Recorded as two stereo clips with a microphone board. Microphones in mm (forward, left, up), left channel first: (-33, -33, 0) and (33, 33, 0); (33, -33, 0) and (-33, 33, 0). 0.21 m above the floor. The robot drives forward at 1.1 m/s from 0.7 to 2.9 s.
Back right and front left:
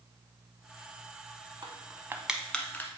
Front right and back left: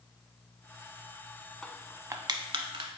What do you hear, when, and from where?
1.6 s crushing: 35° left, 0.7 m; by 2.9 s 160° left, 1.1 m